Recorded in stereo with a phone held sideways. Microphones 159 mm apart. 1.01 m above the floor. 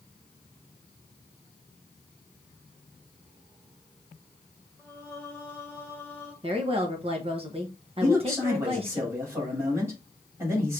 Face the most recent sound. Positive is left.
turn(degrees=-20)  # may be behind; listen again after turning